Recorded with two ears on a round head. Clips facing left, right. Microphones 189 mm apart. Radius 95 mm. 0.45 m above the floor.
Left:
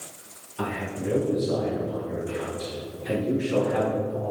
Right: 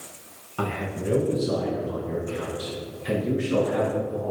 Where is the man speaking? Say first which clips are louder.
Right 1 dB; 75° right (ahead or behind), 5 m; by 4.3 s 80° right, 7.5 m.